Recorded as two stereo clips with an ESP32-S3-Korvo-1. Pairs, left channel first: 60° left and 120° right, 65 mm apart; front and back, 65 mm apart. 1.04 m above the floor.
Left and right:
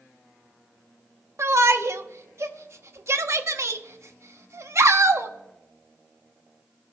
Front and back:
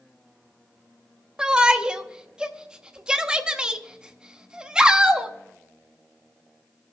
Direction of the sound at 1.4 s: 110° right.